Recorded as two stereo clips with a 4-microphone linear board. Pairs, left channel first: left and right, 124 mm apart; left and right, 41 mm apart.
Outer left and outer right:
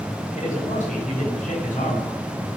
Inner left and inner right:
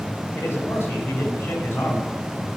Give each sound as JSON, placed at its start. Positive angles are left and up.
{"t": 0.3, "sound": "a man speaking", "side_deg": 70, "distance_m": 7.0}